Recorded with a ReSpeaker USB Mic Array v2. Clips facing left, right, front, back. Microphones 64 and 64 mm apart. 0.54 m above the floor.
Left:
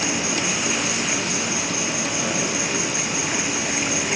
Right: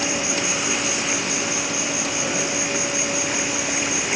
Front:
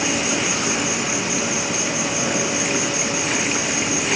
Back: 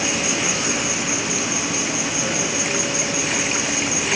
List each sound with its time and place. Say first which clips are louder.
0.0 s an insect: even, front 1 dB; 15° right, 1.9 m